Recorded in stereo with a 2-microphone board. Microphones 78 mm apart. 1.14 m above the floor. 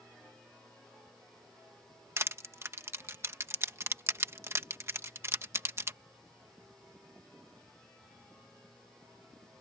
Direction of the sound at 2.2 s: 35° right (ahead or behind).